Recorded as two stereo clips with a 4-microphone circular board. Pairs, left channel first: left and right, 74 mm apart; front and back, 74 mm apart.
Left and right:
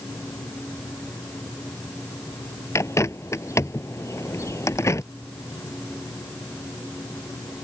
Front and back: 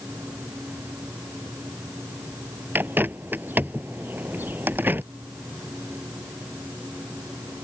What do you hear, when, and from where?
2.8 s a bird: 125° left